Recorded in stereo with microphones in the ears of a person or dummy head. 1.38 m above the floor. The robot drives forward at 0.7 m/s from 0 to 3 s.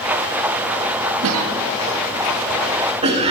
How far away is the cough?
About 0.7 m.